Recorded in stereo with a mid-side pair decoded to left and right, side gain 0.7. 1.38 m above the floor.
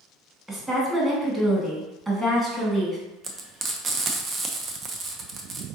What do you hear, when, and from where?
0.5 s a woman speaking: 15° right, 1.5 m
3.2 s frying: 30° right, 0.6 m